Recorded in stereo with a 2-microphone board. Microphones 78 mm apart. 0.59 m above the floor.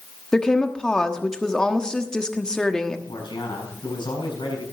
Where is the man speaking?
80° left, 6.5 m.